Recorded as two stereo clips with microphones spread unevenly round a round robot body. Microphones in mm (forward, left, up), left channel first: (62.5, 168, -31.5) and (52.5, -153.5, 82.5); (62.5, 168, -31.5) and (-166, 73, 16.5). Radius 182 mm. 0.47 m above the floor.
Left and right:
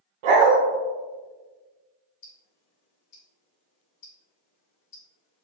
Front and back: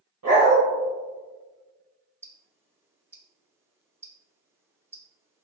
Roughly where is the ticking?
Behind left.